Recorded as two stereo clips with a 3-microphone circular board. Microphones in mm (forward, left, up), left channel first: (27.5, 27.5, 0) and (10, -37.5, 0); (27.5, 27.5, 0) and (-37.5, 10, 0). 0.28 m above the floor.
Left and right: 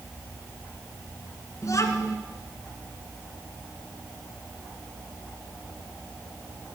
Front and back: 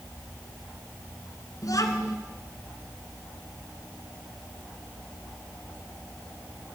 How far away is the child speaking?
About 2 m.